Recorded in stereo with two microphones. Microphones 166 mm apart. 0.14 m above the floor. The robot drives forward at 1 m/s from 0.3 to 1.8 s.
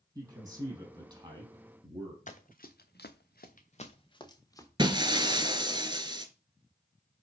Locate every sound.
0.1 s a man speaking: 20° right (ahead or behind), 5 m; by 2.2 s 30° right (ahead or behind), 3.5 m
2.3 s running footsteps: 50° left (ahead or behind), 1.3 m; by 4.7 s 20° left (ahead or behind), 1.9 m
4.8 s breaking glass: 30° right (ahead or behind), 0.7 m